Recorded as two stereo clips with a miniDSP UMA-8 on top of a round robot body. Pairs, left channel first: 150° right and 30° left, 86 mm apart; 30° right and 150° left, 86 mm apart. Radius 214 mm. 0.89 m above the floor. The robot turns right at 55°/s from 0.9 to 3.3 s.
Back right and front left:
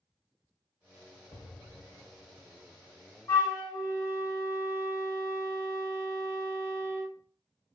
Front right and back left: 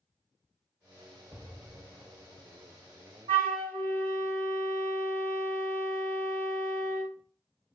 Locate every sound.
1.3 s an explosion: 120° right, 0.7 m; by 2.7 s 45° right, 0.7 m
3.3 s a flute: 150° left, 2 m; by 7.1 s 155° left, 2 m